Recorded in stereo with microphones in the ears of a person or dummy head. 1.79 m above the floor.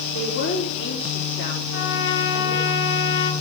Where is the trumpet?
65° left (ahead or behind), 1.1 m.